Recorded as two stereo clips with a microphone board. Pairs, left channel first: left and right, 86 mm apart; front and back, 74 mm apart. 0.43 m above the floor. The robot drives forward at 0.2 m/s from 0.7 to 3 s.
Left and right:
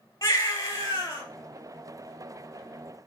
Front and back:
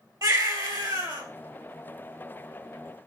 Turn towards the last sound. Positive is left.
turn(degrees=150)